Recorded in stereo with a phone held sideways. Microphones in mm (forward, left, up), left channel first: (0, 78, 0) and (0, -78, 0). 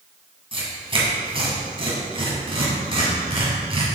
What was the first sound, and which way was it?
Tearing paper, 35° right (ahead or behind).